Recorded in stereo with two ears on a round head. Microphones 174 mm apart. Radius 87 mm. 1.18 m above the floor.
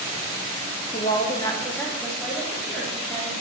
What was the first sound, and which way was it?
A woman speaking, 30° left (ahead or behind).